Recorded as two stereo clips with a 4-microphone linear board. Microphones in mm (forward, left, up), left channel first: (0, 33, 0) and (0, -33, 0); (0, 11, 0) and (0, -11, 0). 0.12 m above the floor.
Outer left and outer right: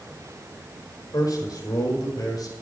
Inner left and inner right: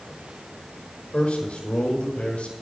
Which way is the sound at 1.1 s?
70° left (ahead or behind).